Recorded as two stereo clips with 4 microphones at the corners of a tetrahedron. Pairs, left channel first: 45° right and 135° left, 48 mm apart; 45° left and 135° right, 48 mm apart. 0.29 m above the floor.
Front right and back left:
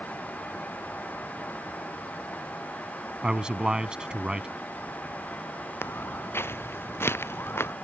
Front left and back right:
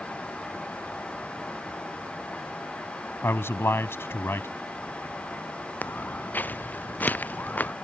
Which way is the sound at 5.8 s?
10° right.